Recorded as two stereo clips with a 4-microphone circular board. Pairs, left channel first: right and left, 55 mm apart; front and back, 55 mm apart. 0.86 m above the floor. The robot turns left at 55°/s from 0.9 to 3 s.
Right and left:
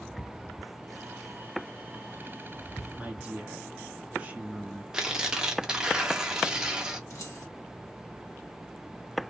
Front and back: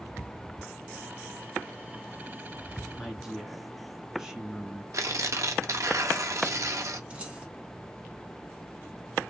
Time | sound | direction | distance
2.9 | a woman speaking | 115° left | 1.0 m
4.9 | tearing paper | 165° left | 0.5 m
7.1 | keys jangling | 115° right | 0.9 m